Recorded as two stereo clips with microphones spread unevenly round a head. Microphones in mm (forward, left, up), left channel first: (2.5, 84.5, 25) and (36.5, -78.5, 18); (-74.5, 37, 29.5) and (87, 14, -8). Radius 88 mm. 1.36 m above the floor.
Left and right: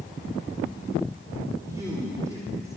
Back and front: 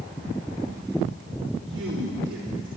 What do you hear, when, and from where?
1.6 s a man speaking: 5° right, 3.5 m